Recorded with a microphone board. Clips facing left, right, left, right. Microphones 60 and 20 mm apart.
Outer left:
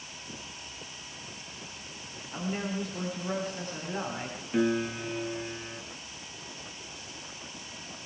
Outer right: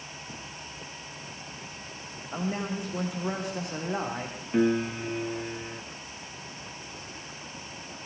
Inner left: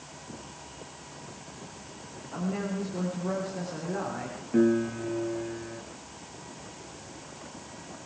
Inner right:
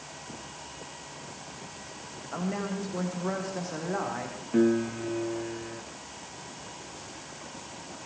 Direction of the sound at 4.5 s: 10° right (ahead or behind).